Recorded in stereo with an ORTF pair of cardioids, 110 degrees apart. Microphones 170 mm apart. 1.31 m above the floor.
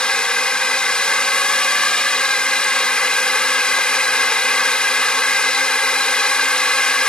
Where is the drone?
5° left.